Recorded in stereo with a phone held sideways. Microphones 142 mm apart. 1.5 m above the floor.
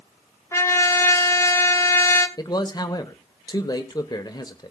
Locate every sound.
0.5 s a trumpet: 20° left (ahead or behind), 1.2 m
2.4 s a man speaking: 30° left (ahead or behind), 1.1 m